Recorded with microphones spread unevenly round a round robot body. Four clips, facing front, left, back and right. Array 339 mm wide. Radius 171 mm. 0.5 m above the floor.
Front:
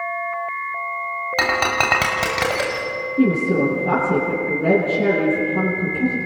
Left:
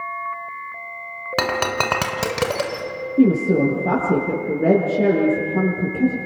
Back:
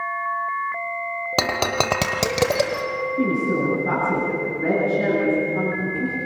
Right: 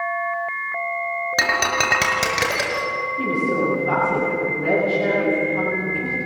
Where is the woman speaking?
80° left, 8 m.